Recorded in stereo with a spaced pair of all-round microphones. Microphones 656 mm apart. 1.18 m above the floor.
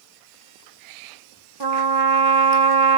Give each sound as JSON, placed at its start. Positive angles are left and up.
{"t": 1.6, "sound": "a trumpet", "side_deg": -40, "distance_m": 0.8}